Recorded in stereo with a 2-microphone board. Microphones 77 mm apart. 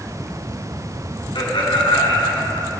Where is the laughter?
80° left, 5.5 m.